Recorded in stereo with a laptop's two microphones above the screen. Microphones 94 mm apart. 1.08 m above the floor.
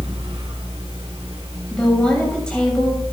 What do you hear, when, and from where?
0.0 s a fan: 80° right, 3 m
1.7 s a woman speaking: 10° left (ahead or behind), 7.5 m